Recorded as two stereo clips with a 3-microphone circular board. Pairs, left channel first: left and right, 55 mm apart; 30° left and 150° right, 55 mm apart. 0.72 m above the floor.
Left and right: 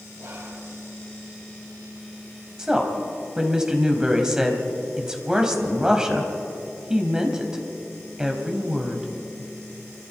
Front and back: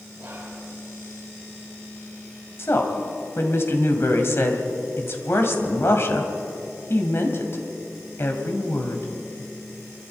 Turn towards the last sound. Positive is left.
turn(degrees=-15)